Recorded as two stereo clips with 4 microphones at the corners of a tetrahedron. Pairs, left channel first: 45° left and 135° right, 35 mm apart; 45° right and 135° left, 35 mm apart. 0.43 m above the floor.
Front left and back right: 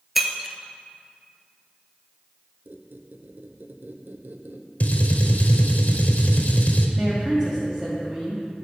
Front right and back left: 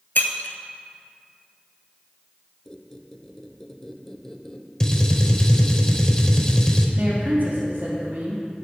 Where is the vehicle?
I don't hear a vehicle.